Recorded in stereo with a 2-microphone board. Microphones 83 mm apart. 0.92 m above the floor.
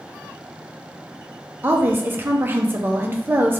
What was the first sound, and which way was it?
A woman speaking, 25° right (ahead or behind).